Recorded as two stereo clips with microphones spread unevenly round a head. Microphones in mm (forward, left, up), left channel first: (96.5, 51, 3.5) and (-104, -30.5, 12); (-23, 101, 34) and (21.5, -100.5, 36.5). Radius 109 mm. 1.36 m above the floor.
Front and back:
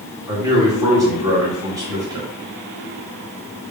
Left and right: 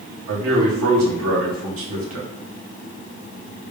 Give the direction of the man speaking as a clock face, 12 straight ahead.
3 o'clock.